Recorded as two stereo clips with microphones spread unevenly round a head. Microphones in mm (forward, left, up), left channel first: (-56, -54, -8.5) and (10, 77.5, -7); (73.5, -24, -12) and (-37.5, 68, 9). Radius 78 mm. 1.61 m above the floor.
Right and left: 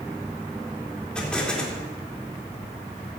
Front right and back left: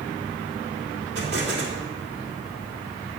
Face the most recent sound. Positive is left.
turn(degrees=160)